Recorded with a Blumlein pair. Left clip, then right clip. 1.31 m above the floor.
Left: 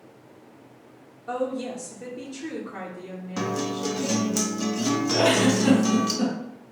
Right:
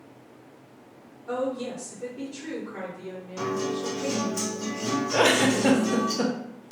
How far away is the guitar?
About 0.7 m.